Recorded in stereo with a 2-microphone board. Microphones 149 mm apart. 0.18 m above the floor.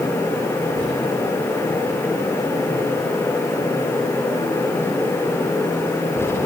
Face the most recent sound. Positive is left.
No sound to turn to.